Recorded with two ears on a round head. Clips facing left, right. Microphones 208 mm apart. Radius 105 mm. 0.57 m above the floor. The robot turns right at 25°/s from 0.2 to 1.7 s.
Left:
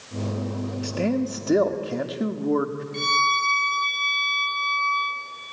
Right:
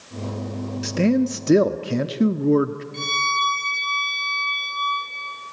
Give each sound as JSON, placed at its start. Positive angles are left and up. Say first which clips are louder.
{"t": 0.8, "sound": "a man speaking", "louder": "right 6 dB", "side_deg": -25, "distance_m": 0.7}
{"t": 2.9, "sound": "a violin", "louder": "left 2 dB", "side_deg": 0, "distance_m": 6.0}